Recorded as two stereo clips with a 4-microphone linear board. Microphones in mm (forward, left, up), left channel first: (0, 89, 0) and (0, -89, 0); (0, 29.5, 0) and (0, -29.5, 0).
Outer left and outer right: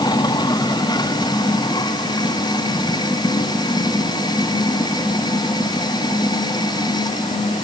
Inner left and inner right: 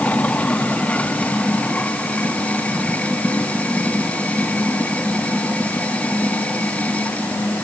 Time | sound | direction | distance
0.0 | running water | 20° left (ahead or behind) | ?